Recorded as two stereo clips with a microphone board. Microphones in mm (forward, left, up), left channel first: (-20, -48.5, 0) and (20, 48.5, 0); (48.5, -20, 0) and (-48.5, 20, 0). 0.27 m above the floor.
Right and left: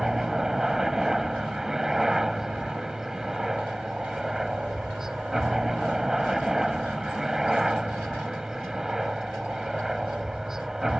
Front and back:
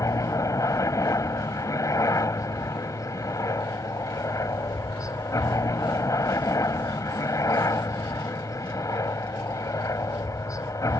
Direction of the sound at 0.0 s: 15° right.